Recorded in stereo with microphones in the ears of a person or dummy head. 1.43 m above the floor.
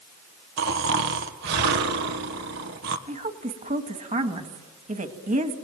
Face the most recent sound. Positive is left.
turn(degrees=-30)  # may be behind; listen again after turning